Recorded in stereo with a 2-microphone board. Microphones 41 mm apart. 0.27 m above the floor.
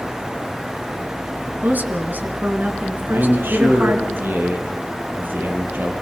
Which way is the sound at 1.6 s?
45° right (ahead or behind).